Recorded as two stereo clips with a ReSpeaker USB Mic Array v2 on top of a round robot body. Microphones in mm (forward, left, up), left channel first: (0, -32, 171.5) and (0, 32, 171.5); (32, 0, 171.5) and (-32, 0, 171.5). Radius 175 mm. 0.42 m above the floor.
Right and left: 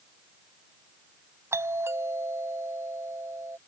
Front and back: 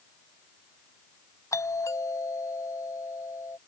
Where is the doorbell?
40° left.